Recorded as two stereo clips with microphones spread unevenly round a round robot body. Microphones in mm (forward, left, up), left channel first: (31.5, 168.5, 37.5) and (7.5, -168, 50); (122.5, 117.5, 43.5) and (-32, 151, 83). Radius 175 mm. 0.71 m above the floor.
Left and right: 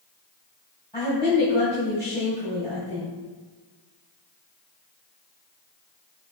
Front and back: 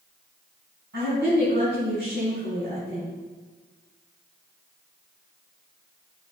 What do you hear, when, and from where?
0.9 s a woman speaking: 170° right, 4 m